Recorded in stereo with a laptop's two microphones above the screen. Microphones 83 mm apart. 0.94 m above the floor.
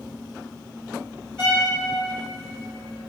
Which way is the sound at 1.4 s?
10° left (ahead or behind).